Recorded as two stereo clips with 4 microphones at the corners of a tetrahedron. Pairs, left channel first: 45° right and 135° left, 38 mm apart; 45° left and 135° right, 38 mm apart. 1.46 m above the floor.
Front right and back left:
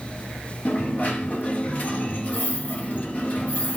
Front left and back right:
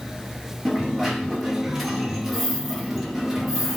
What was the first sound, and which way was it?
A dropped coin, 55° right.